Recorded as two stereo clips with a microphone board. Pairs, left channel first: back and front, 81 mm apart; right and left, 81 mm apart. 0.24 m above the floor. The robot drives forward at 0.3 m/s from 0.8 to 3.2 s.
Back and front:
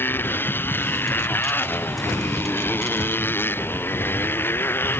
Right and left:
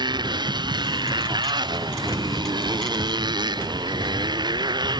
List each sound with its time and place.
0.0 s a motorcycle: 115° left